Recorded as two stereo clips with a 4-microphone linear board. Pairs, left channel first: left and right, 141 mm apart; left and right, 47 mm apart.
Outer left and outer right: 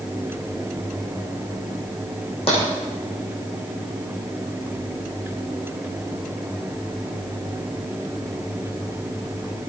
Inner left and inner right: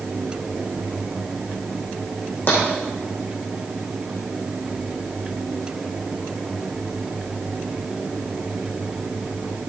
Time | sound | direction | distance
2.5 | tapping | 45° left (ahead or behind) | 7 m